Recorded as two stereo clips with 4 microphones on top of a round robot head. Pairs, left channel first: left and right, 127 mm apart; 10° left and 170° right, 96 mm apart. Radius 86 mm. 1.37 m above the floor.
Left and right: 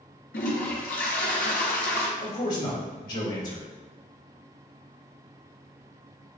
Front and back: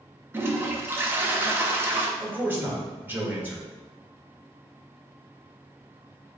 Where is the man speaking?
120° left, 1.9 m.